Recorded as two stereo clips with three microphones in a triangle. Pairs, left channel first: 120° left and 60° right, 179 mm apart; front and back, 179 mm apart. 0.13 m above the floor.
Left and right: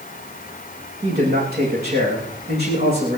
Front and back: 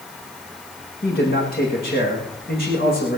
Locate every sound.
1.0 s a man speaking: 35° right, 8 m